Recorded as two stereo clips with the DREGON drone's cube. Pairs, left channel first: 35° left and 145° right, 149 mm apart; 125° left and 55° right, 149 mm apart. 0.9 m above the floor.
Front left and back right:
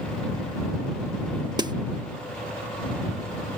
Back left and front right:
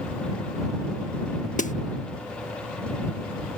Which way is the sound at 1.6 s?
155° left.